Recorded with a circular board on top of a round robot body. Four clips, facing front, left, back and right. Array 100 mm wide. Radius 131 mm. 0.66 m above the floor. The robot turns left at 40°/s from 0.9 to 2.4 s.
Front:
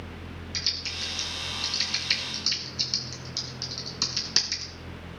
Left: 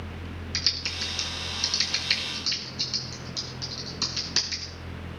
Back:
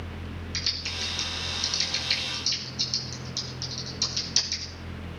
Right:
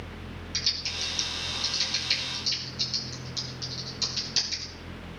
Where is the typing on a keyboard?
100° left, 2.5 m; by 4.7 s 40° left, 2.5 m.